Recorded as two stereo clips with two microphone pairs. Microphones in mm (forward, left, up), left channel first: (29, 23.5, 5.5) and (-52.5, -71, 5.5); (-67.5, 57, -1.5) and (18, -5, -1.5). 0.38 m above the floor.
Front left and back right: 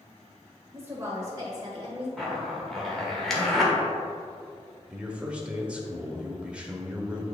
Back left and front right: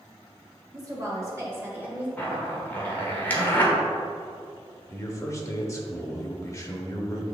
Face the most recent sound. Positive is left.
turn(degrees=160)